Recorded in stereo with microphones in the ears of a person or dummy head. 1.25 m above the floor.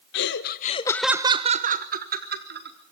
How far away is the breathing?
I don't hear breathing.